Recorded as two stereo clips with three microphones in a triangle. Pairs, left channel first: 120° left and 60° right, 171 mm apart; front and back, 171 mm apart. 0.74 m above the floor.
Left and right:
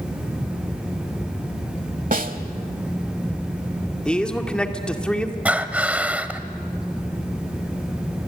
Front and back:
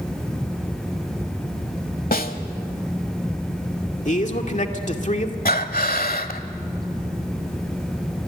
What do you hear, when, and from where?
2.1 s a snare drum: 25° right, 1.2 m
4.0 s a man speaking: 35° left, 2 m
5.5 s breathing: 20° left, 1.2 m